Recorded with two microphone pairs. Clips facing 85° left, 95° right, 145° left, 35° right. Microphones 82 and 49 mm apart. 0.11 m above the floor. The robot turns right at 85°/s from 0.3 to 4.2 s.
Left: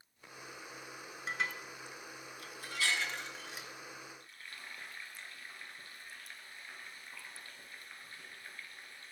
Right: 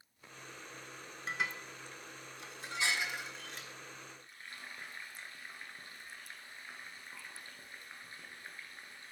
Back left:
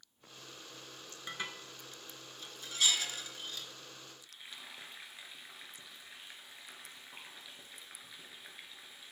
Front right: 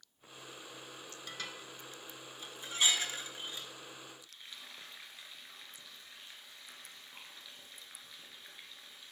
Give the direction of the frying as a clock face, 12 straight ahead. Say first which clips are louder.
Right 1 dB, back left 1 dB; 5 o'clock.